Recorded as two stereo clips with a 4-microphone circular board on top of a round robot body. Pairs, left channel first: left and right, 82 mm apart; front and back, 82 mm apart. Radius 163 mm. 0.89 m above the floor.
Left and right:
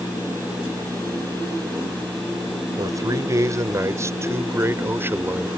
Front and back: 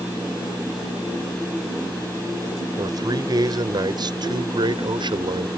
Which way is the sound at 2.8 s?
135° right.